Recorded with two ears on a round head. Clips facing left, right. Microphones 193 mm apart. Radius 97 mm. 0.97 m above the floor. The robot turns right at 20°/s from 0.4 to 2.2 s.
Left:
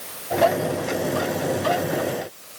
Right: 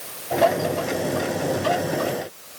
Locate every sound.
Only background noise.